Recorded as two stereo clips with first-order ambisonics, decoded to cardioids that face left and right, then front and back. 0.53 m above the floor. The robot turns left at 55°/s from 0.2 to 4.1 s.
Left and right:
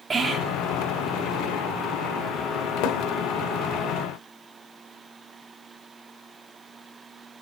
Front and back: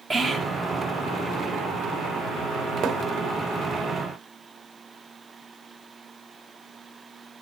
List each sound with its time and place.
0.1 s whispering: 135° right, 0.6 m; by 0.6 s 155° right, 0.6 m
2.8 s a thud: 120° left, 0.7 m; by 3.0 s 110° left, 0.7 m